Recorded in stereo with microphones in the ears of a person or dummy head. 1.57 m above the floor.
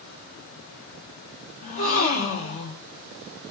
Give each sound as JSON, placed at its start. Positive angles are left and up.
{"t": 1.6, "sound": "a gasp", "side_deg": 45, "distance_m": 0.9}